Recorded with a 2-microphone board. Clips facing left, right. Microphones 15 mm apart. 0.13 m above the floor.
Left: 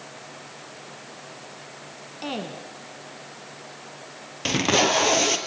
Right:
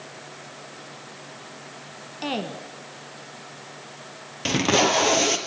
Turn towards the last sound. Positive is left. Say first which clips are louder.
# even
turn(degrees=5)  # may be behind; listen again after turning